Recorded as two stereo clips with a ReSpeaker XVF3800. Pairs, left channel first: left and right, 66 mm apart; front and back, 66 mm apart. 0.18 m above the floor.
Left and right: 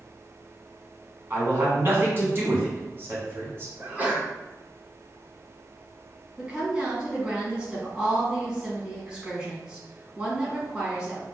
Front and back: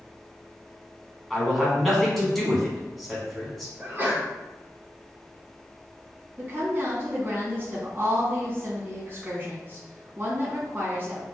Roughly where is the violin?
No violin in this recording.